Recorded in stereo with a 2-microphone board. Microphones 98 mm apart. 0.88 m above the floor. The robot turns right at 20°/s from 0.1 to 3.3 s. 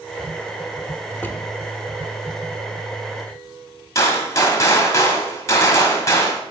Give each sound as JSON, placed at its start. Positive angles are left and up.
{"t": 1.1, "sound": "a drawer", "side_deg": 15, "distance_m": 0.5}
{"t": 4.0, "sound": "a gunshot", "side_deg": 35, "distance_m": 1.2}